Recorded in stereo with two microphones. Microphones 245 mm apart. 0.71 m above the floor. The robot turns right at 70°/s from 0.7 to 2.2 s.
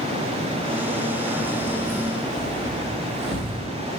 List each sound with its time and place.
1.4 s keys jangling: 45° left (ahead or behind), 3 m; by 3.6 s 10° right (ahead or behind), 3 m